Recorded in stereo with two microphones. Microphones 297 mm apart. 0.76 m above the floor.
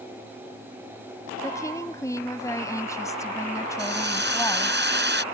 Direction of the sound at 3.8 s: 35° right (ahead or behind).